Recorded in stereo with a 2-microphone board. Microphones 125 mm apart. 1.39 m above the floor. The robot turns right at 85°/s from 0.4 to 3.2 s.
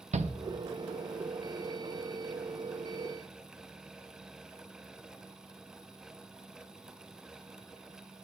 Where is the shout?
65° right (ahead or behind), 0.6 m.